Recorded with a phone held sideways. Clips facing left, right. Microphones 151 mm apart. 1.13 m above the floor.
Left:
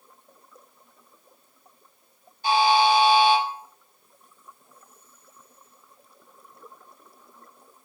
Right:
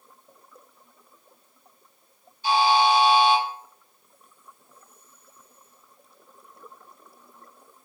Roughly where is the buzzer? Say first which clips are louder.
Left 1 dB; left.